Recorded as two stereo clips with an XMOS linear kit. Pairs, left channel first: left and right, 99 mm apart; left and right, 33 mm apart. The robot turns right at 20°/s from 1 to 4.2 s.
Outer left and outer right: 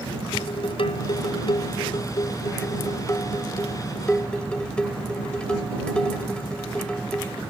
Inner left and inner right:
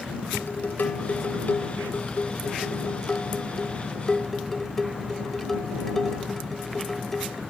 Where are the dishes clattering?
105° left; by 7.4 s 170° left.